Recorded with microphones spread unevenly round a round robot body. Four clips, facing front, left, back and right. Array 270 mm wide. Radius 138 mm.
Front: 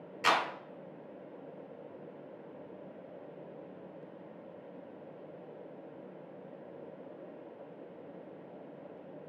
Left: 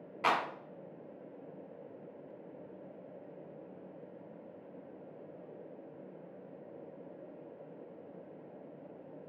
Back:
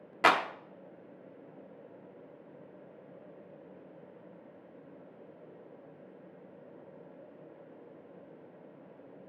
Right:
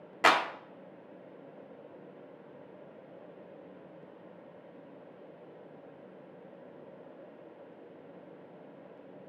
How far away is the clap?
About 1.4 m.